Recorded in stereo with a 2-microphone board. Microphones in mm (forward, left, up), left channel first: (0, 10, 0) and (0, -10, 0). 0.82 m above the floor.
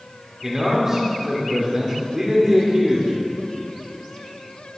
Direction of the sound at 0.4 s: 20° right (ahead or behind).